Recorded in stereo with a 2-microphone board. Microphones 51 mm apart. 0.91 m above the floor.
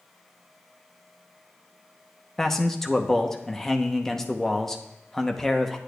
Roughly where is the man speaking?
Centre.